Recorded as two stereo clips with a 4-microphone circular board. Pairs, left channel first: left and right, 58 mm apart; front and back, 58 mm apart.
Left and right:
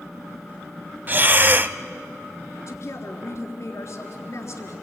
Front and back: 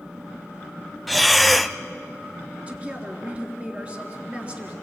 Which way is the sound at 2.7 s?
115° left.